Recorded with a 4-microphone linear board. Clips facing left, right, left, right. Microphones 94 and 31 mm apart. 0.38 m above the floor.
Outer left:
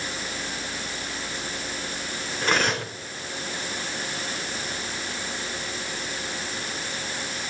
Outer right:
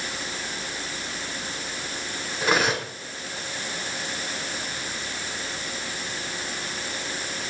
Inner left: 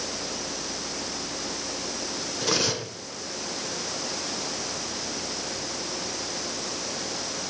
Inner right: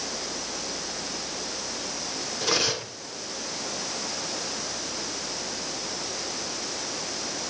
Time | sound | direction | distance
2.4 | cutlery clinking | 5° right (ahead or behind) | 2.5 m